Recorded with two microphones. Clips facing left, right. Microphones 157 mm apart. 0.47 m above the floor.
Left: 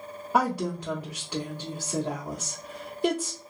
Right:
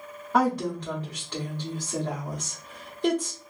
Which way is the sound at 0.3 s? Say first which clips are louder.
Right 2 dB; 10° left (ahead or behind).